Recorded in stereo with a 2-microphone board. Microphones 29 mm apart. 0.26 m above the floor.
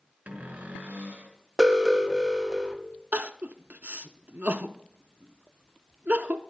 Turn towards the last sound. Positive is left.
turn(degrees=-70)  # may be behind; listen again after turning